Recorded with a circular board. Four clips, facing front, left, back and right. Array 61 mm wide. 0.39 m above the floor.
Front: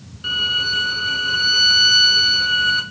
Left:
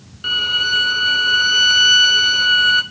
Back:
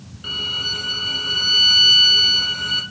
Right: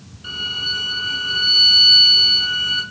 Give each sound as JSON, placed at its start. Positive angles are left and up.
{"t": 0.2, "sound": "a violin", "azimuth_deg": 80, "distance_m": 0.7}